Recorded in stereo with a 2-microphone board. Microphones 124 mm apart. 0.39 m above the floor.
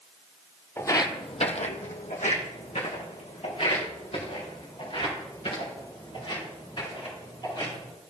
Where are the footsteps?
20° left (ahead or behind), 0.9 m; by 7.9 s 45° left (ahead or behind), 7 m.